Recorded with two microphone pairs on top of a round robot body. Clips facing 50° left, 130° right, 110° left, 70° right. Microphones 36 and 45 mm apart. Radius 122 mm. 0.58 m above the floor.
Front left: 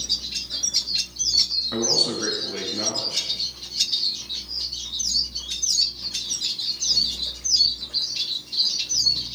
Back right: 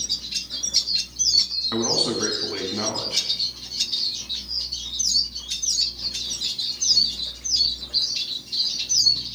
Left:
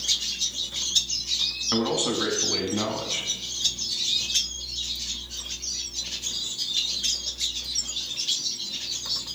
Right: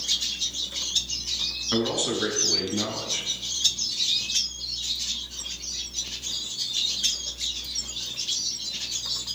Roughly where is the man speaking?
Behind.